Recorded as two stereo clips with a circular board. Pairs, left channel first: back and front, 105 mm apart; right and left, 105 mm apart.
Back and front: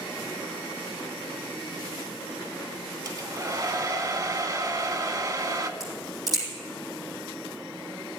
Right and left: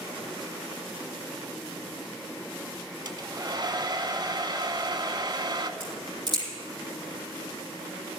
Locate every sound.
3.0 s a hair dryer: 50° left, 0.7 m
5.8 s a crack: 50° left, 6 m